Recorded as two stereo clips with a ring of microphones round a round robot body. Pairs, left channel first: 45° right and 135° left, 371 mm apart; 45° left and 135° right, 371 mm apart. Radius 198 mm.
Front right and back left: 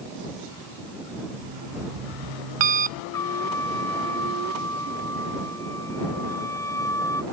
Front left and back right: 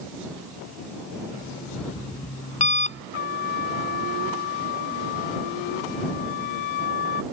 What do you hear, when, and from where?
1.3 s an alarm clock: 120° left
3.1 s a trumpet: 35° left